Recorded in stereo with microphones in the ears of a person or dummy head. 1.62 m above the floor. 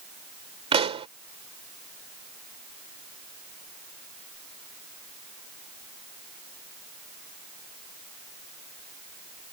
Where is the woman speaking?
I don't hear a woman speaking.